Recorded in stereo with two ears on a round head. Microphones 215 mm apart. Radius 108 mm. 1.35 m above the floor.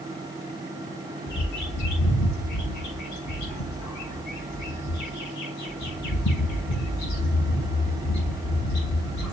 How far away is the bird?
About 6.5 m.